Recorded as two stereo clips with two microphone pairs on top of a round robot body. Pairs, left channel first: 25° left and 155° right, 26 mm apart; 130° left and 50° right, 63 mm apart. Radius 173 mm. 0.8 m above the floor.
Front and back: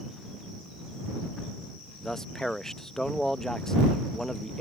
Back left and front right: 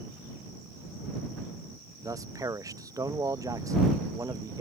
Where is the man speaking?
45° right.